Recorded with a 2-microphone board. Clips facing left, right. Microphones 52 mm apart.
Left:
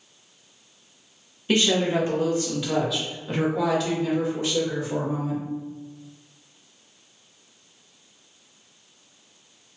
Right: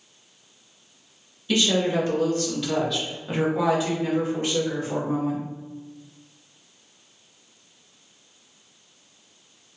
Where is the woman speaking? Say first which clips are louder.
Left 1 dB; 35° left (ahead or behind), 1.3 m; by 5.4 s 50° right (ahead or behind), 1.7 m.